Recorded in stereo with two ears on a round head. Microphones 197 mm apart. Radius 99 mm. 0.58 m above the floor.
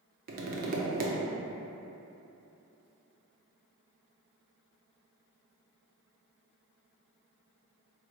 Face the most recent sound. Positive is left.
turn(degrees=-40)  # may be behind; listen again after turning